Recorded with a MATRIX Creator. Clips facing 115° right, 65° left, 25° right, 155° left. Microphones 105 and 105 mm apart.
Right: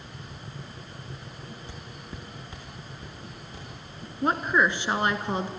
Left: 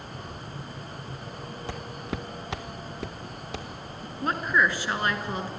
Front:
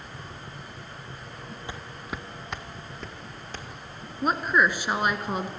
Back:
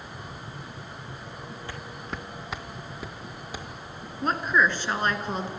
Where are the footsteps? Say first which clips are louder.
Left 8 dB, front 1 dB; 50° left, 0.6 m; by 3.7 s 80° left, 1.9 m.